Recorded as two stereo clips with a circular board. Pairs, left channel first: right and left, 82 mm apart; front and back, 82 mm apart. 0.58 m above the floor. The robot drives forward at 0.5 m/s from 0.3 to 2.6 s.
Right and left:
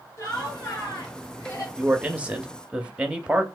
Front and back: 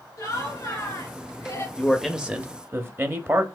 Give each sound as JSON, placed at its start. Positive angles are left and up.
{"t": 0.2, "sound": "laughter", "azimuth_deg": -40, "distance_m": 3.0}
{"t": 1.8, "sound": "a man speaking", "azimuth_deg": 50, "distance_m": 0.6}